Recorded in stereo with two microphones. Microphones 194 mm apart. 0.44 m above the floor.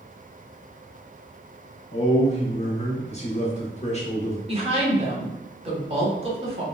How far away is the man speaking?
About 0.8 m.